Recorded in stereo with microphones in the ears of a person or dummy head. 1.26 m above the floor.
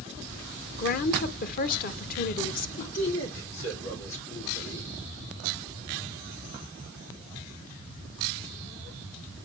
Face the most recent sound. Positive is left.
turn(degrees=75)  # may be behind; listen again after turning